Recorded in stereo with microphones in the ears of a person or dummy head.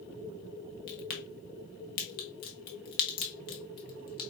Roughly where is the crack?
Left.